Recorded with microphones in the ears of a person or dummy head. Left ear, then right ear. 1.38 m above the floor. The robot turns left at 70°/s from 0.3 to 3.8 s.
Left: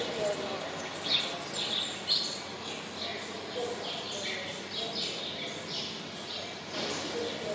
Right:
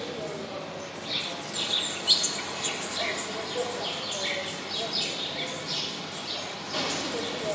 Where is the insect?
90° left, 1.1 m; by 7.6 s 155° right, 1.1 m.